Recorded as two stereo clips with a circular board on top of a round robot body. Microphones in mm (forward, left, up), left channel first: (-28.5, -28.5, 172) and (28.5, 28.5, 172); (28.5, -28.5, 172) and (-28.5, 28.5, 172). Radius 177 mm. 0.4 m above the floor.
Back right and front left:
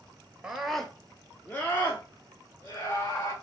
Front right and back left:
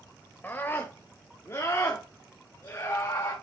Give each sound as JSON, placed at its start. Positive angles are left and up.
{"t": 0.4, "sound": "a scream", "azimuth_deg": -25, "distance_m": 1.5}